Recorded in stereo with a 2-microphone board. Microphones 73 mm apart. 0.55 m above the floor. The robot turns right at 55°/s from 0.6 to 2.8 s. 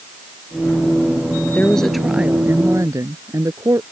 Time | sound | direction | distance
1.6 | a woman speaking | 155° left | ?